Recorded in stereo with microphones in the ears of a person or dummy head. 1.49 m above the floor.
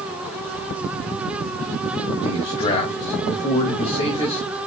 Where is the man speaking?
35° left (ahead or behind), 2.5 m.